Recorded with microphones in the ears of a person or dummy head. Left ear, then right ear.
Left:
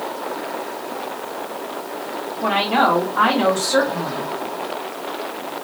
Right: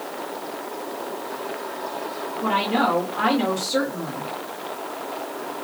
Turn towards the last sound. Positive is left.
turn(degrees=65)  # may be behind; listen again after turning